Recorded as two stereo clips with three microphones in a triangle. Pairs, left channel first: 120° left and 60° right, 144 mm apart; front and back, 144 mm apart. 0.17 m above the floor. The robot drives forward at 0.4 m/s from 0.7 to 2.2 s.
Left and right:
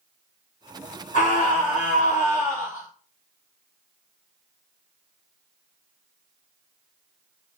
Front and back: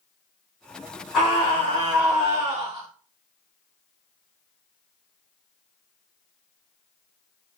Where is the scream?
90° left, 5.5 m; by 2.9 s 95° left, 5.5 m.